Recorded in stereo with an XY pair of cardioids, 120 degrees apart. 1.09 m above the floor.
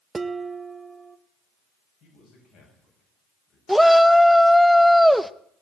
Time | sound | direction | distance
0.1 | dishes clattering | 15° right | 0.8 m
2.0 | a man speaking | 65° left | 7.5 m
3.7 | a shout | straight ahead | 0.8 m